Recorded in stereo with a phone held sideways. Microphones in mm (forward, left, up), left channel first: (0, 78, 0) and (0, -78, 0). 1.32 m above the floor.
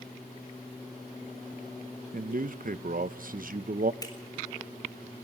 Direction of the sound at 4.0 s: 25° left (ahead or behind).